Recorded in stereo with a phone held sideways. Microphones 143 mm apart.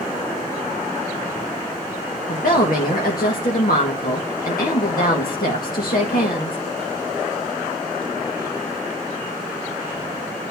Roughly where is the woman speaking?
Left.